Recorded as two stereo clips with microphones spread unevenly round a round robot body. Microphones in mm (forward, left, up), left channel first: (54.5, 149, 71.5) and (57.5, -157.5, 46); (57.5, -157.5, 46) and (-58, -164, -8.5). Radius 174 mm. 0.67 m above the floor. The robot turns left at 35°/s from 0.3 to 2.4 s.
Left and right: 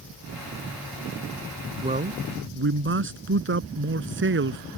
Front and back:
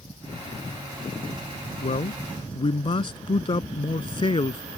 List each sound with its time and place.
1.8 s a man speaking: 15° right; by 4.6 s 35° right